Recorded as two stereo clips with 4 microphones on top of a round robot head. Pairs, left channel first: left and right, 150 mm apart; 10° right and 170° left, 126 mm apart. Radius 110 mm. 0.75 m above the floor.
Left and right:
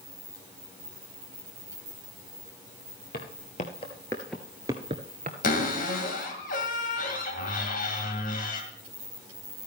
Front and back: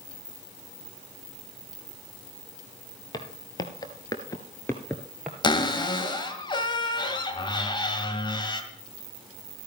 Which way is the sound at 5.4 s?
45° left.